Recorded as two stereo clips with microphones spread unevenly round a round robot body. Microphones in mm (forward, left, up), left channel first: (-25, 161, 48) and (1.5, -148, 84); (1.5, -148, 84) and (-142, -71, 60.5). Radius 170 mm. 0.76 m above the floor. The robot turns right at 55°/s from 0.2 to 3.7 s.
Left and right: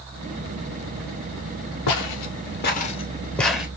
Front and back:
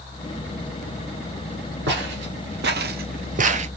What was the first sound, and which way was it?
Footsteps, 120° left.